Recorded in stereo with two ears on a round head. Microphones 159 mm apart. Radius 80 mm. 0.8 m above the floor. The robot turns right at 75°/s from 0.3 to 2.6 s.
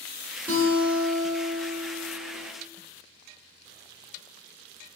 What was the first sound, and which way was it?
A guitar, 10° left.